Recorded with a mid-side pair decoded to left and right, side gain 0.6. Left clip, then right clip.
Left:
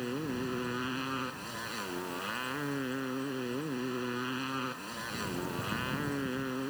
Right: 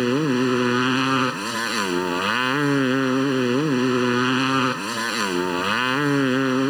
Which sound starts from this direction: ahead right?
A motorcycle, at 0.0 s.